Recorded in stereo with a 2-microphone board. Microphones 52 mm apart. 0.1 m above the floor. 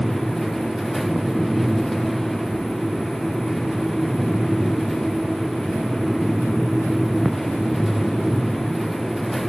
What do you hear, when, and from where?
Only background noise.